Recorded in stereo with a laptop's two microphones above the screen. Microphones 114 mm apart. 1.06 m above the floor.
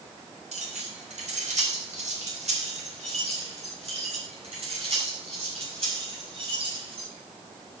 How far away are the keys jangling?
About 3 m.